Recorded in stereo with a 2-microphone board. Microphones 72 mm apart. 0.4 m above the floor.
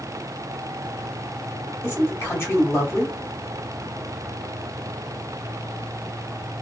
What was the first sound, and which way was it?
A man speaking, 35° left (ahead or behind).